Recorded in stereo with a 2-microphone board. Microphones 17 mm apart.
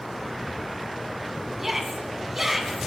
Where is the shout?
20° right (ahead or behind), 3 m.